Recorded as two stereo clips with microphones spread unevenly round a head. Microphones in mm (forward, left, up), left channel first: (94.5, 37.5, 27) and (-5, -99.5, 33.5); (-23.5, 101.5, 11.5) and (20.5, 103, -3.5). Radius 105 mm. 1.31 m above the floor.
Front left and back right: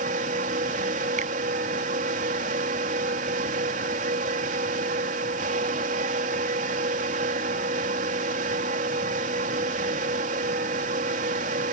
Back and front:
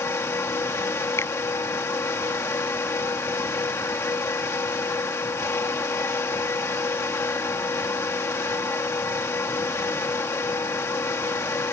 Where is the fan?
Straight behind.